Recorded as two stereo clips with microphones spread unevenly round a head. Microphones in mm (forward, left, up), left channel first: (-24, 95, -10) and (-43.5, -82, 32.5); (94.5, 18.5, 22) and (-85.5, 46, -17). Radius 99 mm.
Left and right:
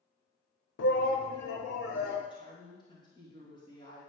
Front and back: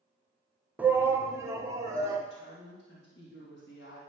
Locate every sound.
0.8 s a shout: 90° left, 0.8 m; by 2.2 s 100° left, 3 m
2.3 s a woman speaking: 15° left, 2.5 m